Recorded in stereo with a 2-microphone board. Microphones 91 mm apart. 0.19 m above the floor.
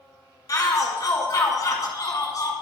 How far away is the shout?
About 1.8 m.